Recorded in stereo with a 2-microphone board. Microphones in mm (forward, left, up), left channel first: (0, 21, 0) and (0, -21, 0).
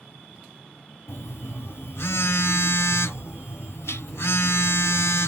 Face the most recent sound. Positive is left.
turn(degrees=85)